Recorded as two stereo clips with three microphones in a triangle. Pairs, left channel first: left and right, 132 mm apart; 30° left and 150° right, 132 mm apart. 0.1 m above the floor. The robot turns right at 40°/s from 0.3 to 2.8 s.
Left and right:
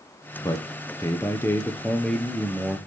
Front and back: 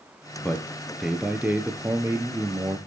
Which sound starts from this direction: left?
A man speaking, at 0.4 s.